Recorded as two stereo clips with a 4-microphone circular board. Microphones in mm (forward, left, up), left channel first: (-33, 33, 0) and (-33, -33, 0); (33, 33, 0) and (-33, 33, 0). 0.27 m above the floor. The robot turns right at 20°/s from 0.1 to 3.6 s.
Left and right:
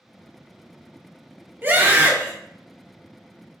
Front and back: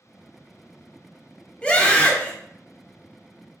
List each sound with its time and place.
1.6 s a scream: 60° right, 1.0 m; by 2.3 s 45° right, 1.0 m